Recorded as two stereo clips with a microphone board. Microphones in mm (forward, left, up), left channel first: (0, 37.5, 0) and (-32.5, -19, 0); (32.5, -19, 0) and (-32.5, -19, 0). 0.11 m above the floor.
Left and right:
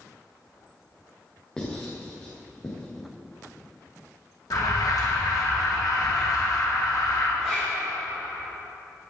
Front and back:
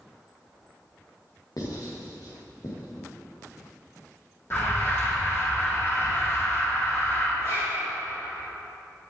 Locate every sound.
1.6 s writing: 15° right, 4.5 m
4.5 s an alarm: 50° left, 3.5 m
7.4 s a zipper: 35° right, 3.5 m